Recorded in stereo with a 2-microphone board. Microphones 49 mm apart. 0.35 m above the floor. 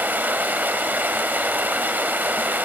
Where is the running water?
35° right (ahead or behind), 0.8 m.